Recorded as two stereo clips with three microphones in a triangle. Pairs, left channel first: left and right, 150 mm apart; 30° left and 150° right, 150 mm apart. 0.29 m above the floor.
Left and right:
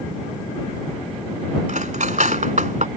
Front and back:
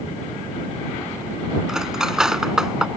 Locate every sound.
1.7 s cutlery clinking: 65° right